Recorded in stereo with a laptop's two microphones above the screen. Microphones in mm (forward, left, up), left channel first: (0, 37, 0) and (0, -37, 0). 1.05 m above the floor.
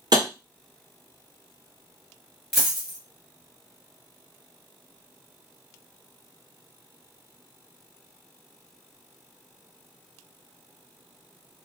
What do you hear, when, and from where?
0.1 s tapping: 65° right (ahead or behind), 1.1 m
2.5 s a dropped coin: 5° left (ahead or behind), 1.5 m